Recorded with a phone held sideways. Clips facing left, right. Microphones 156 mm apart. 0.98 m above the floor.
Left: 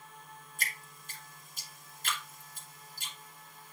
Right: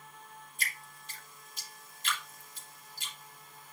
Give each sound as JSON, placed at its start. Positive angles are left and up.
{"t": 0.6, "sound": "dripping", "side_deg": 45, "distance_m": 2.5}